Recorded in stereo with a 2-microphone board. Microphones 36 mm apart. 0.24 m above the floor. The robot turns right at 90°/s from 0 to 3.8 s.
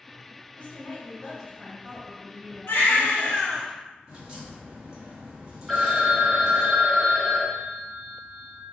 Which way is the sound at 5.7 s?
5° right (ahead or behind).